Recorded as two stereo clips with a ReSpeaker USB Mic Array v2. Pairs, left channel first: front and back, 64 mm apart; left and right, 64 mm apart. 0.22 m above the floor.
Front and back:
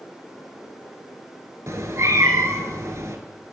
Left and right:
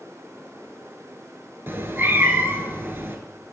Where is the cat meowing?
145° right, 0.7 m.